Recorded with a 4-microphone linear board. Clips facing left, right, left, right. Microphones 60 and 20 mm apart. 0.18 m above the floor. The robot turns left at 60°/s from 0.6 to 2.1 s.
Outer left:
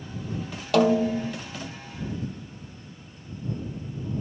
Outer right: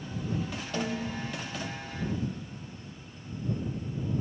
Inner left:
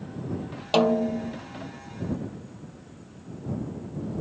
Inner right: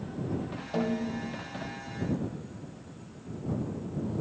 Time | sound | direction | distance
0.7 | a snare drum | 105° left | ?